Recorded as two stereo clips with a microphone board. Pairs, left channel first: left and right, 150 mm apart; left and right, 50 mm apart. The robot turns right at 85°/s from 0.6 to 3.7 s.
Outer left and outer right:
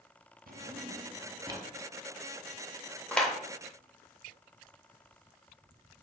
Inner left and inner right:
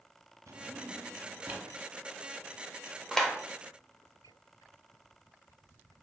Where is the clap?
10° left (ahead or behind), 0.7 m; by 6.0 s 10° right (ahead or behind), 0.7 m.